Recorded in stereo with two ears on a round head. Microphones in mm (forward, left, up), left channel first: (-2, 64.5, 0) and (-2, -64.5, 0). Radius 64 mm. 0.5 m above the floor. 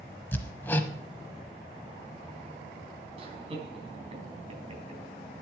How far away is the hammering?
About 0.9 m.